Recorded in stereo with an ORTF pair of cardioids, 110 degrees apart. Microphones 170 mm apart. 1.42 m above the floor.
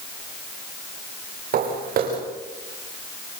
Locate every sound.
1.5 s footsteps: 60° right, 6.5 m